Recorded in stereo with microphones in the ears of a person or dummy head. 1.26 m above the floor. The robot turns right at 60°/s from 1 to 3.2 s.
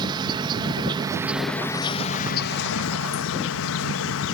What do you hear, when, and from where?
0.0 s an insect: 25° right; by 4.3 s 110° left